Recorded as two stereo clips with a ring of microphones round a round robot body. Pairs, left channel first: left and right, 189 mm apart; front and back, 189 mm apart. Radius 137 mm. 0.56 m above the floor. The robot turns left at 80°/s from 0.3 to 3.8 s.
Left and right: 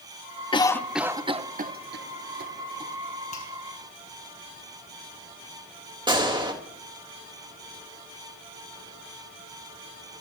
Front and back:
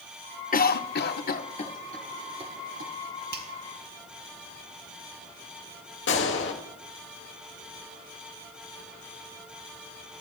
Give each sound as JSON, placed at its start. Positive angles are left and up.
{"t": 0.5, "sound": "a cough", "azimuth_deg": 30, "distance_m": 1.3}
{"t": 3.3, "sound": "a finger snap", "azimuth_deg": 150, "distance_m": 2.0}
{"t": 6.1, "sound": "a gunshot", "azimuth_deg": -25, "distance_m": 2.5}